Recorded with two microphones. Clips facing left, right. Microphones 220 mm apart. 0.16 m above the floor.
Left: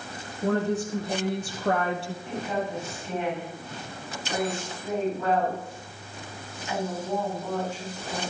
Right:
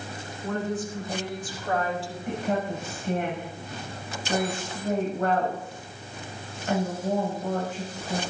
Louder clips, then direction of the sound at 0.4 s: Left 4 dB; 75° left (ahead or behind).